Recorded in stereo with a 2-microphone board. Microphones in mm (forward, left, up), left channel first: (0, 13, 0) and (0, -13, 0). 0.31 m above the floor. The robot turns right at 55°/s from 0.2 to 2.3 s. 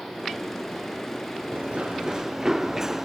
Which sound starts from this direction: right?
Running footsteps, at 1.5 s.